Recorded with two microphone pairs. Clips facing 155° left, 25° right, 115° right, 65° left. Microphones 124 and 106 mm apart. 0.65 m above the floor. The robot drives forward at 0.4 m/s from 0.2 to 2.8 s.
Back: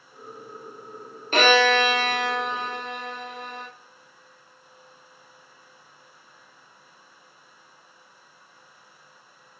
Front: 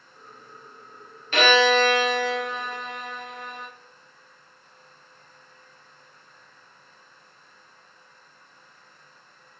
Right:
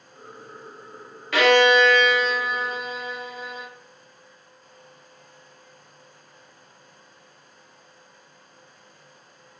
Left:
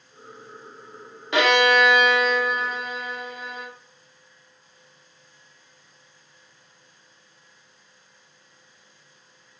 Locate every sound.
1.3 s a violin: 120° left, 0.6 m; by 3.7 s 155° left, 0.9 m